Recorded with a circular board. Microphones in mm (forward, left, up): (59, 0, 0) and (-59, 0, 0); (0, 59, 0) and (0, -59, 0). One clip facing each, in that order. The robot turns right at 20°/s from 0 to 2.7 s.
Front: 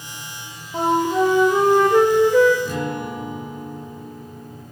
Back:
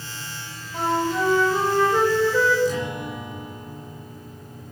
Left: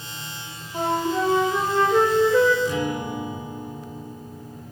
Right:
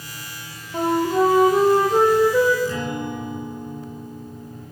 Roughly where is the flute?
Ahead right.